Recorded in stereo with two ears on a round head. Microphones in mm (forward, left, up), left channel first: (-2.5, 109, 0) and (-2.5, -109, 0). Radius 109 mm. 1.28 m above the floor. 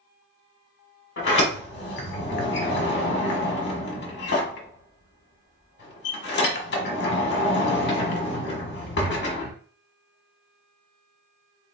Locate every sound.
1.2 s a sliding door: 45° left (ahead or behind), 1.2 m